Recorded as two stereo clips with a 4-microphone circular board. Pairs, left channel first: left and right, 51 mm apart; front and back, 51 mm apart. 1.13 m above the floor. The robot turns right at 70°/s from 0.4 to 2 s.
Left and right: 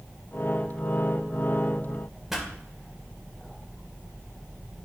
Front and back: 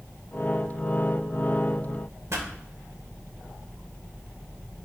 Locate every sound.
2.3 s a pop: 170° right, 1.5 m